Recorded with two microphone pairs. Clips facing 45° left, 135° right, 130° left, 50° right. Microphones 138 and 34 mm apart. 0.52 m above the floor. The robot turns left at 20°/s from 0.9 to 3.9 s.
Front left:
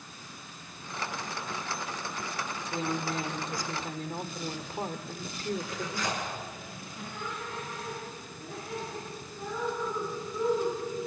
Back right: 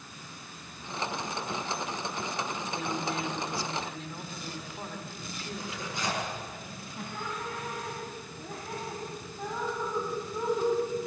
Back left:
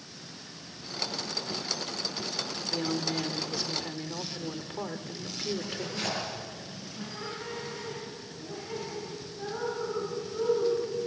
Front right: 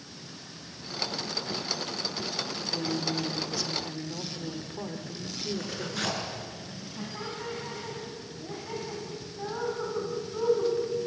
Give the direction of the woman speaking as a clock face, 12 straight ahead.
9 o'clock.